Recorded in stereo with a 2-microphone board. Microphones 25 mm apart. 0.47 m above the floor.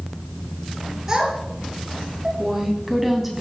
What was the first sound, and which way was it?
A child speaking, 25° right (ahead or behind).